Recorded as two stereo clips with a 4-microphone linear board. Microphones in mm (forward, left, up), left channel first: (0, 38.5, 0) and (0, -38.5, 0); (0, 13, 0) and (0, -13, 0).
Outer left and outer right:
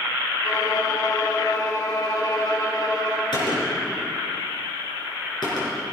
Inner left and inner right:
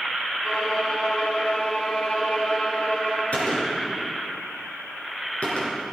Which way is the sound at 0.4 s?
60° left (ahead or behind).